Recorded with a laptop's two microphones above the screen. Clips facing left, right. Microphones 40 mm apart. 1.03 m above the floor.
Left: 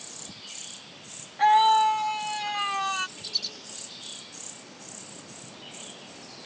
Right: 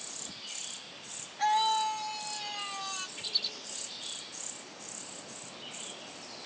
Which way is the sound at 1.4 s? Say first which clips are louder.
Left 9 dB; 35° left (ahead or behind).